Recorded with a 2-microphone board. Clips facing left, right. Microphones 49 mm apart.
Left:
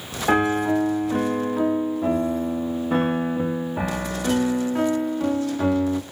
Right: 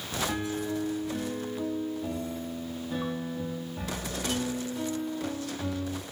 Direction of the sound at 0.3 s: 55° left (ahead or behind).